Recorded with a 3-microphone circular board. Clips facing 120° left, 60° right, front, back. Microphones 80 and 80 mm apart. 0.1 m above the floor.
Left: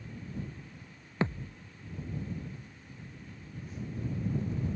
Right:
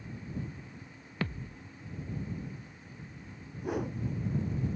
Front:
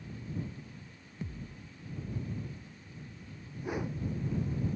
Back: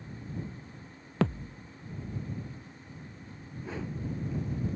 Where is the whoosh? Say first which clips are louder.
Right 8 dB, front 2 dB; 75° right.